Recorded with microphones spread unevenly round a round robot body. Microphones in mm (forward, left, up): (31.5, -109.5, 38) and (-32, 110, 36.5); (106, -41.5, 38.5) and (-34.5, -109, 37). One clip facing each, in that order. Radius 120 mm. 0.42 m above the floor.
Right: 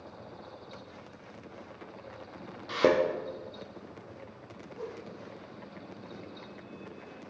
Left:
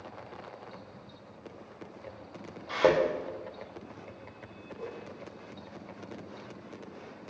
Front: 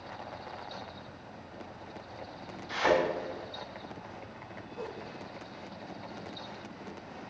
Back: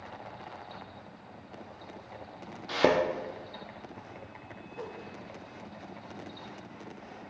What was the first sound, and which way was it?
A thud, 135° right.